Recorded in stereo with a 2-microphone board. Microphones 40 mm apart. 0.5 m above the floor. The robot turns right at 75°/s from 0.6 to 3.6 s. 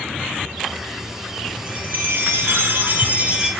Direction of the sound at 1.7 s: 150° right.